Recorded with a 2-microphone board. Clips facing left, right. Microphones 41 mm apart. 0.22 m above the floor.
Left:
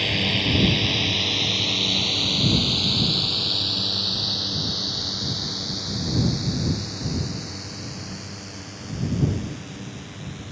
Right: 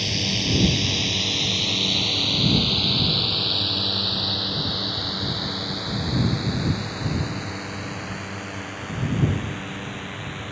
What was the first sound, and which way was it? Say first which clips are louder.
A drone: left 3 dB; 30° left (ahead or behind).